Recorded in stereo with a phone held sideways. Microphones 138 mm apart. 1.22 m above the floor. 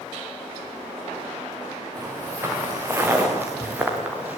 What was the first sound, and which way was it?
Footsteps, 25° right (ahead or behind).